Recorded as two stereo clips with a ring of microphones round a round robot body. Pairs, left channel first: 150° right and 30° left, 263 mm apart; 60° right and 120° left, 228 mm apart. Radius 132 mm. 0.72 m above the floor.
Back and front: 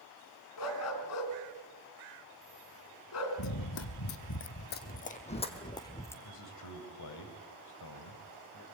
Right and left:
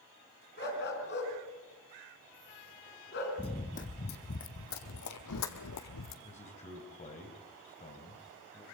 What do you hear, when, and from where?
0.6 s a dog barking: 115° right, 3.5 m
3.4 s running footsteps: 130° right, 1.8 m; by 6.2 s 70° right, 2 m
6.2 s a man speaking: 125° right, 3.5 m